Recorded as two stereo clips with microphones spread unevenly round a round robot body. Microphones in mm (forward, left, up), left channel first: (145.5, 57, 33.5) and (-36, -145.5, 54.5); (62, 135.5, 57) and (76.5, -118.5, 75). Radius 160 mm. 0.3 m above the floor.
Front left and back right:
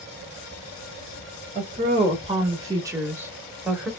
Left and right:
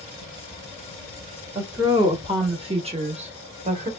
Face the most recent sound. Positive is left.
turn(degrees=-40)